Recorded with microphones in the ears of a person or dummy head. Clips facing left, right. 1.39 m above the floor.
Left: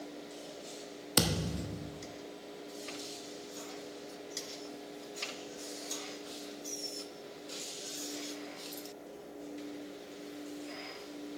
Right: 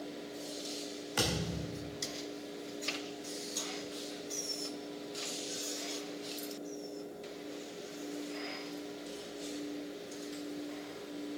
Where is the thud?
55° left (ahead or behind), 1.2 m.